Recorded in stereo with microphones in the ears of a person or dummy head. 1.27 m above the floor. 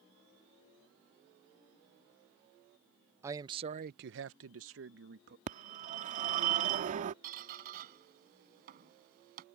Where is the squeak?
55° right (ahead or behind).